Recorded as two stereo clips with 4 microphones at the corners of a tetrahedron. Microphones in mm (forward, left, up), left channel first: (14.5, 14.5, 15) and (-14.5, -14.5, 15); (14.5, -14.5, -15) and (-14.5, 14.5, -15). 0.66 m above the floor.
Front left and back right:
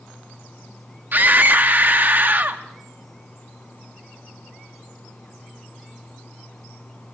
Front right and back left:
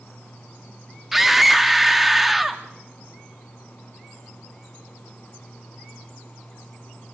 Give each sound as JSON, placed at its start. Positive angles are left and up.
{"t": 1.1, "sound": "a scream", "azimuth_deg": -140, "distance_m": 0.7}